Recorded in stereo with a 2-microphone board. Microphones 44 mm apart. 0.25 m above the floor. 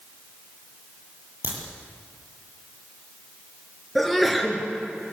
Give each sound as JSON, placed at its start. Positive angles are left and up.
{"t": 1.4, "sound": "a crack", "side_deg": -55, "distance_m": 7.5}
{"t": 4.0, "sound": "a sneeze", "side_deg": 0, "distance_m": 4.5}